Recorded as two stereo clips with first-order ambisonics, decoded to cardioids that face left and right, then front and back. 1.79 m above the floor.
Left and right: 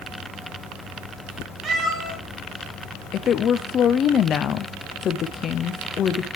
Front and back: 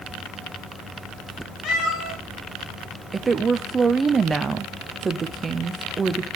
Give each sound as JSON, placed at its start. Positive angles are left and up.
{"t": 1.6, "sound": "a cat meowing", "azimuth_deg": -40, "distance_m": 2.5}
{"t": 3.1, "sound": "a woman speaking", "azimuth_deg": 120, "distance_m": 0.5}